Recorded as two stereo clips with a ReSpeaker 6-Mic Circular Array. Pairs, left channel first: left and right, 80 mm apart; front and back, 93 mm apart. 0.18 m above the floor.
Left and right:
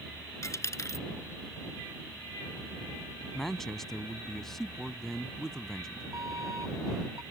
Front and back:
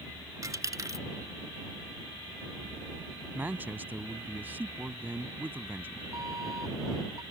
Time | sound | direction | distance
0.4 | a dropped coin | 135° left | ?
3.3 | a man speaking | 170° left | ?
6.1 | an alarm | 130° right | ?